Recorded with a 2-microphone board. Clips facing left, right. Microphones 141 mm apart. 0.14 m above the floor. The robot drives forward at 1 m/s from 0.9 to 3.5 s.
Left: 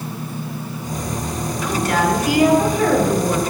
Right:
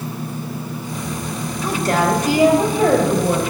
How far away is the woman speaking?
About 1.5 m.